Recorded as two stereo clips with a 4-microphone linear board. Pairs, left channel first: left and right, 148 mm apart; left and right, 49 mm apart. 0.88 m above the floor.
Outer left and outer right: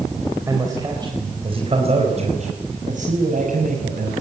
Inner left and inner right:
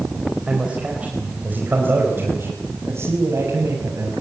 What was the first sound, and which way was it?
A man speaking, 20° right (ahead or behind).